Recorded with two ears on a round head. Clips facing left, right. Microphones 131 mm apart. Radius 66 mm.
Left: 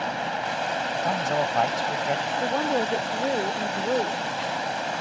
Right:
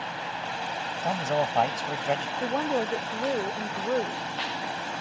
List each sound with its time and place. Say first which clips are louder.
0.0 s running water: left 6 dB; 60° left (ahead or behind)
1.0 s a man speaking: even; 5° right (ahead or behind)
2.4 s a woman speaking: left 3 dB; 10° left (ahead or behind)